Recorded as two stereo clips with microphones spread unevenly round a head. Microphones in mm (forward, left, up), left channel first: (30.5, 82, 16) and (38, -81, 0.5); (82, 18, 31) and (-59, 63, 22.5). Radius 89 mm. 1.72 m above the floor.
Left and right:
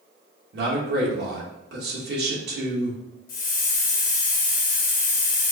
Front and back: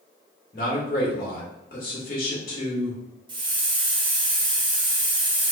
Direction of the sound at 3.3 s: 105° left.